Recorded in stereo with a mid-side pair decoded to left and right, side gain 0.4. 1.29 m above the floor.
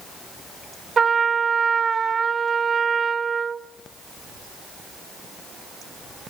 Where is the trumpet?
45° right, 1.0 m.